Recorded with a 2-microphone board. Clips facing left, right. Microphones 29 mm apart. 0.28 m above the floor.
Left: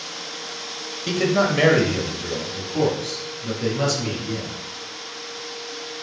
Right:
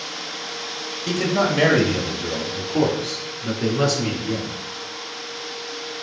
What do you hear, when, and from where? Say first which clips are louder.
1.1 s a man speaking: left 1 dB; 20° left (ahead or behind), 1.6 m; by 4.5 s 30° right (ahead or behind), 5 m